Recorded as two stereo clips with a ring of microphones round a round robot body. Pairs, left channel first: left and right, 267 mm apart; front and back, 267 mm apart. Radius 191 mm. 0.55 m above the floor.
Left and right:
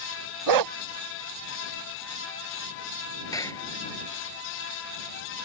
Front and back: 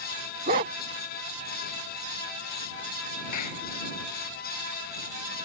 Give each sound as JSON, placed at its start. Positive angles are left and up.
{"t": 0.5, "sound": "a dog barking", "azimuth_deg": -110}
{"t": 3.3, "sound": "a clap", "azimuth_deg": 10}